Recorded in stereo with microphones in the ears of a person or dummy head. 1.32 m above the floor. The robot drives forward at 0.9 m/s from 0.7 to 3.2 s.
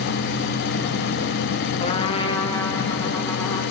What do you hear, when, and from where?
1.8 s a trumpet: 30° left (ahead or behind), 1.0 m; by 3.6 s 15° left (ahead or behind), 2 m